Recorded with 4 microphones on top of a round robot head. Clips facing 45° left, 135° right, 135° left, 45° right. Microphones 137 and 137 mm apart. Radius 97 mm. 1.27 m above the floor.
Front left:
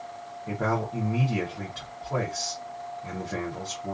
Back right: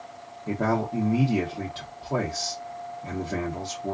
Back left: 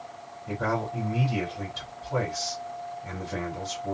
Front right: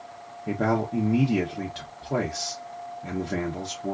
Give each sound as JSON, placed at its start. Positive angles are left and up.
{"t": 0.5, "sound": "a man speaking", "azimuth_deg": -65, "distance_m": 0.7}